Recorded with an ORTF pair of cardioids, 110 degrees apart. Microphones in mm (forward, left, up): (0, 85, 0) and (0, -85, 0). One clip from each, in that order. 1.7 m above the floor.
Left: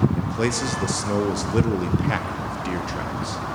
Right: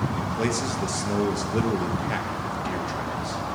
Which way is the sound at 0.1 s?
20° left.